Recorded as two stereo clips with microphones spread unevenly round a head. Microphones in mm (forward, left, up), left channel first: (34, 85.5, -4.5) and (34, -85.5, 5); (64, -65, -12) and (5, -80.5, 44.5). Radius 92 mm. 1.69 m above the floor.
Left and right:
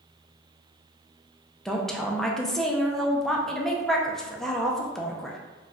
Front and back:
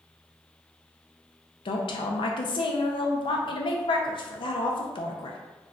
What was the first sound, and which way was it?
A woman speaking, straight ahead.